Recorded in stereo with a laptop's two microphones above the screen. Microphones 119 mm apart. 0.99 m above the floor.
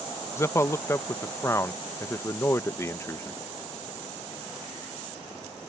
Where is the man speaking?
20° left (ahead or behind).